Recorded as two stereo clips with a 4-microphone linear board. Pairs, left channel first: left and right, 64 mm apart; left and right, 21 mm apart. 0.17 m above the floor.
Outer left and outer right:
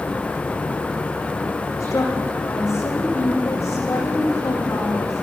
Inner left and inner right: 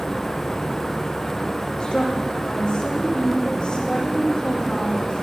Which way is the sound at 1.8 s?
55° left (ahead or behind).